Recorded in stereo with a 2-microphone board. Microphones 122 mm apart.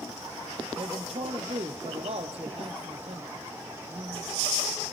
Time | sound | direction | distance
0.8 | a man speaking | 60° right (ahead or behind) | 3 m